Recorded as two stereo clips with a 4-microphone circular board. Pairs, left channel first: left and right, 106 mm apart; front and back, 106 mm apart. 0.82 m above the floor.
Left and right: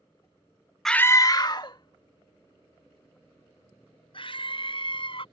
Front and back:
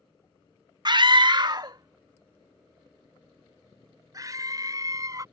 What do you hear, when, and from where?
0.8 s a scream: 175° left; by 5.2 s 125° left